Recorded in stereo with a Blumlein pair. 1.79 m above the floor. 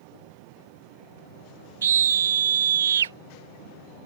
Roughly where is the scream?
Ahead right.